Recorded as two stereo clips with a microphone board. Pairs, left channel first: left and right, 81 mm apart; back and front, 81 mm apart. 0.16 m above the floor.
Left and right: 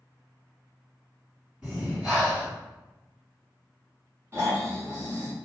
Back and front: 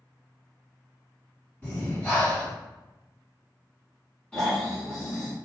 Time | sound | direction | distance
1.6 | breathing | 155° right | 1.6 m
4.3 | snoring | 110° right | 1.2 m